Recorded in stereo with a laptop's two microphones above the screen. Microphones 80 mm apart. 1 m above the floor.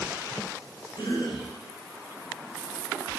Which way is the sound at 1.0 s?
70° left (ahead or behind).